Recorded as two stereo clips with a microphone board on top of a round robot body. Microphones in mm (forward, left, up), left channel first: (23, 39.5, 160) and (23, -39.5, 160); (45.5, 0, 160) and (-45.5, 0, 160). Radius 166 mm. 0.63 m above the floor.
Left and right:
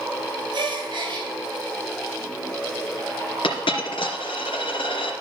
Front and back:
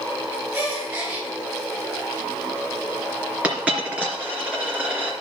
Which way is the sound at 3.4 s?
100° left.